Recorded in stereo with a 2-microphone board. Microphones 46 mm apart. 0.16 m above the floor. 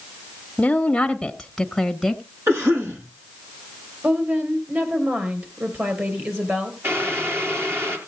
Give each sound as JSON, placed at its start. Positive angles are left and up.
{"t": 0.6, "sound": "a woman speaking", "side_deg": 20, "distance_m": 1.2}
{"t": 2.5, "sound": "a cough", "side_deg": -75, "distance_m": 7.5}
{"t": 4.0, "sound": "a woman speaking", "side_deg": -40, "distance_m": 3.5}
{"t": 6.8, "sound": "boiling", "side_deg": -60, "distance_m": 3.0}